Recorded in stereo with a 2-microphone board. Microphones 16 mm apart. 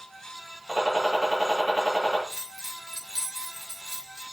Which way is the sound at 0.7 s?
80° right.